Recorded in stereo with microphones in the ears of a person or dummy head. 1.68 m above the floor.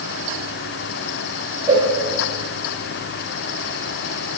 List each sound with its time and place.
1.7 s a cowbell: 15° right (ahead or behind), 2.5 m